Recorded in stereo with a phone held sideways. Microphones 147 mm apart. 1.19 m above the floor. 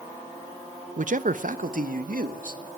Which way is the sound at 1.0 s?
60° right (ahead or behind).